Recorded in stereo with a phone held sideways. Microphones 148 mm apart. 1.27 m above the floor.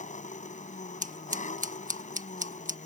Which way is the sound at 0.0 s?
55° left (ahead or behind).